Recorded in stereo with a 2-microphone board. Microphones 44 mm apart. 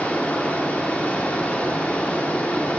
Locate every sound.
0.0 s running water: 30° left (ahead or behind), 1.0 m